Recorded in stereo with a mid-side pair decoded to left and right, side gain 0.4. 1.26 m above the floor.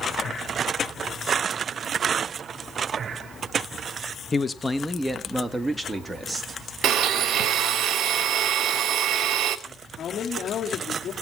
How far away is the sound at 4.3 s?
About 1.4 m.